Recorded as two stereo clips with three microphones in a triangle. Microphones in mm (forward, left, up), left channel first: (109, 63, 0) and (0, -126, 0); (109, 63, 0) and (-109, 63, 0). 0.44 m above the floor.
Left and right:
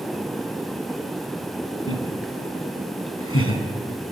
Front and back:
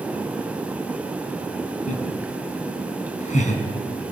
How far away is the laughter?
About 5 m.